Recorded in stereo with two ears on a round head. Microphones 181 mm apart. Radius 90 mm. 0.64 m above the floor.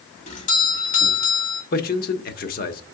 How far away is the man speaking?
About 0.9 m.